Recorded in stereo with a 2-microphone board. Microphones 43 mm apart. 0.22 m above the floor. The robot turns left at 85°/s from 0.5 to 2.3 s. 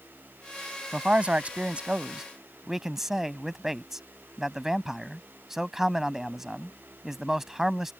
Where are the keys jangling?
I don't hear keys jangling.